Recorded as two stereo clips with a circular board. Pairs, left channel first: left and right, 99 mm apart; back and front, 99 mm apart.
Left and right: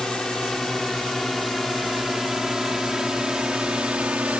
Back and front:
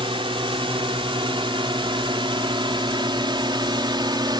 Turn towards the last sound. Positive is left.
turn(degrees=-15)